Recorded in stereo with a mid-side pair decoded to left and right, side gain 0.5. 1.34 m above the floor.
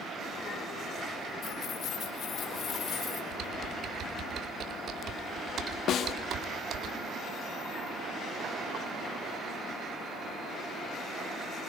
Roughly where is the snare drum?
Ahead left.